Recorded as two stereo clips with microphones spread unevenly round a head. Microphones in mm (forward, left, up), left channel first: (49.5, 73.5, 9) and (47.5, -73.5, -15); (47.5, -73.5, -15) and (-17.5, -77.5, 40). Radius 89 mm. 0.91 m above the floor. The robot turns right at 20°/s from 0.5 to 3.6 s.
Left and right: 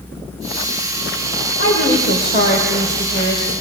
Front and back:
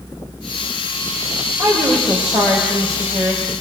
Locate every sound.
1.6 s a woman speaking: 115° left, 3.5 m; by 3.5 s 155° left, 3.5 m